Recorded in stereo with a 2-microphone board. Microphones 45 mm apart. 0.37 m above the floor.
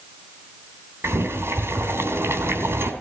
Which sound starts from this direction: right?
Boiling, at 1.0 s.